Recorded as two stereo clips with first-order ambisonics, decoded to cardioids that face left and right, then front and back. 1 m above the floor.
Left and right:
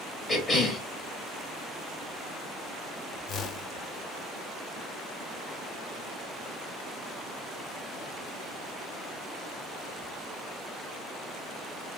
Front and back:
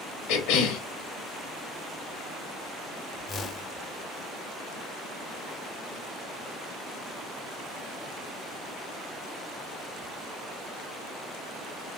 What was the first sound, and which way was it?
A cough, 5° left.